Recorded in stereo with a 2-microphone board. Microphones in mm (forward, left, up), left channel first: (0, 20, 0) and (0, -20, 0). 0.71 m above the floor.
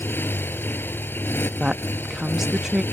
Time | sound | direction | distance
0.0 | a motorcycle | 55° left (ahead or behind) | ?
1.6 | a woman speaking | 10° right (ahead or behind) | ?